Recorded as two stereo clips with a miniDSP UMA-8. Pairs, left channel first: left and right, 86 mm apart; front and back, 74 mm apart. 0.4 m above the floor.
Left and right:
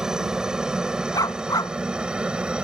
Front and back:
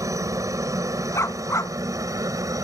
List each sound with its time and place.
0.0 s a helicopter: 170° right; by 2.6 s 165° right
1.1 s a dog barking: 50° left